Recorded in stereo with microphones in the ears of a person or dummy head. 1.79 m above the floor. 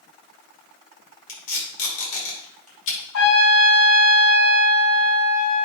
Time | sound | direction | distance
1.3 | tape being pulled | 90° left | 5.5 m
3.1 | a trumpet | 70° left (ahead or behind) | 6.5 m